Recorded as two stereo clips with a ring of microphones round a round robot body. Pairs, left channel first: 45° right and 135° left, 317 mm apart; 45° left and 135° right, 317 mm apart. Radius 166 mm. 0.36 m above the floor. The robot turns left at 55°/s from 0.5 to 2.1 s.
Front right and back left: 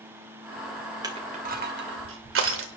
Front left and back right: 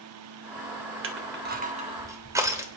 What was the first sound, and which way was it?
Crushing, 155° right.